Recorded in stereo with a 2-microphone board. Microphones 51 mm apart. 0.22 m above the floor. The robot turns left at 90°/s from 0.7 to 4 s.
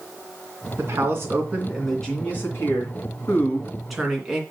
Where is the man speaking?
80° right, 2.5 m; by 4.4 s 10° right, 2.5 m.